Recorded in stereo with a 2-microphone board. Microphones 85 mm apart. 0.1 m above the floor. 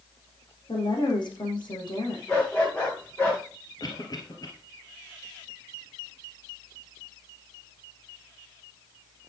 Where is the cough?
50° left (ahead or behind), 2 m.